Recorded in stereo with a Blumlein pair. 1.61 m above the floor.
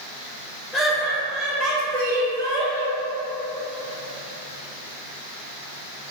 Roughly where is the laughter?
Ahead.